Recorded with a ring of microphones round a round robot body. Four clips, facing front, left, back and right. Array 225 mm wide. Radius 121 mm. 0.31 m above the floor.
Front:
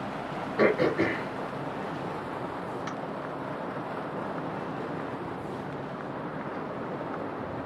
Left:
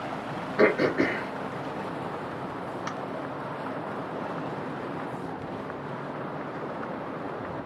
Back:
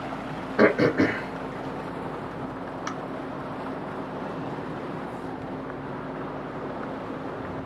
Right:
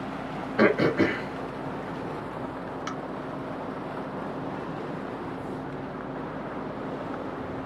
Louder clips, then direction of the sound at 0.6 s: Right 1 dB, back 4 dB; 155° right.